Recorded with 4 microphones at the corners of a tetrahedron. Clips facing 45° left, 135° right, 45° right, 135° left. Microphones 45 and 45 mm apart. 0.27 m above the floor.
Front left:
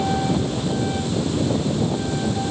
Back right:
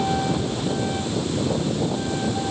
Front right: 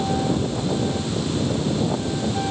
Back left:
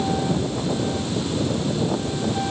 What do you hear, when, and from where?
Only background noise.